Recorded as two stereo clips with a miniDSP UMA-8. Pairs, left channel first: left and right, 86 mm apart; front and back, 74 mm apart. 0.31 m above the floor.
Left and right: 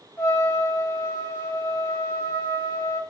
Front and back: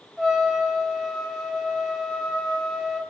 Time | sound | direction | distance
0.2 | a trumpet | 80° left | 1.5 m